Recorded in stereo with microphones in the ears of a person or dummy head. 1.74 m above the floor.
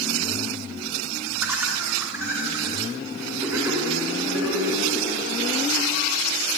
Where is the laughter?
10° right (ahead or behind), 3.5 m; by 5.0 s 20° right (ahead or behind), 7 m.